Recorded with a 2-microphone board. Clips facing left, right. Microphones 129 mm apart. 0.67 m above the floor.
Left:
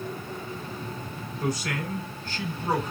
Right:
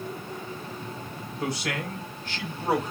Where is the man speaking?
70° right (ahead or behind), 3.5 m.